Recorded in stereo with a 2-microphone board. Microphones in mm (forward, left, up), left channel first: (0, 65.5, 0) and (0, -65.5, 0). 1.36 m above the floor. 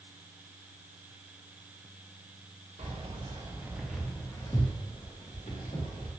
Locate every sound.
2.8 s keys jangling: 55° right (ahead or behind), 0.7 m; by 6.1 s 60° left (ahead or behind), 1.2 m